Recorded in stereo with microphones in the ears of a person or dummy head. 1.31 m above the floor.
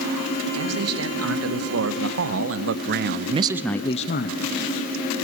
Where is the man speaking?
80° right, 3 m; by 4.5 s 55° left (ahead or behind), 0.9 m.